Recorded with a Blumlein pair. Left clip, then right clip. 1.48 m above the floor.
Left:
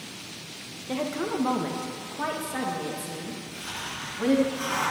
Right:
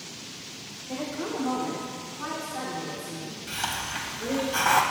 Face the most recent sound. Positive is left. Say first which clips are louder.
# right 8 dB
turn(degrees=-45)